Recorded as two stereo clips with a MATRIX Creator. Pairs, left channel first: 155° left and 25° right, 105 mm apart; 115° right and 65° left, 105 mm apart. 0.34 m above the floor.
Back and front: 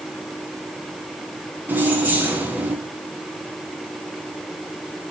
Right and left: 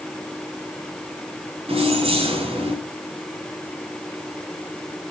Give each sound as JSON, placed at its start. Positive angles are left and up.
{"t": 1.7, "sound": "keys jangling", "azimuth_deg": 50, "distance_m": 2.5}